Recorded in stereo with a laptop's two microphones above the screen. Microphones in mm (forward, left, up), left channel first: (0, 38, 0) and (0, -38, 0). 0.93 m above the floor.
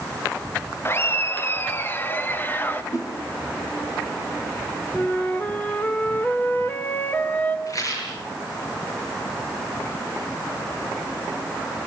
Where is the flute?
25° left (ahead or behind), 3.5 m.